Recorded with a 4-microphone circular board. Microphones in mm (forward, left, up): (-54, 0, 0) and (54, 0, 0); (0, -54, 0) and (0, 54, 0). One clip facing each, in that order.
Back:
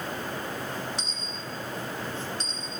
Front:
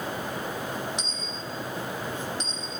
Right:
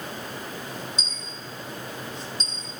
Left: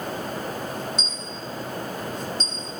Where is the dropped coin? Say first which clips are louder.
Front 2 dB, left 5 dB; 70° left, 3.5 m.